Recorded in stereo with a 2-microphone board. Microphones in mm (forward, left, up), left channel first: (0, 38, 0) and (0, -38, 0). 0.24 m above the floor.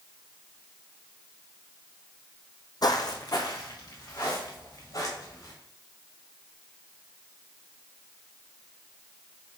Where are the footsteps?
55° left (ahead or behind), 0.6 m.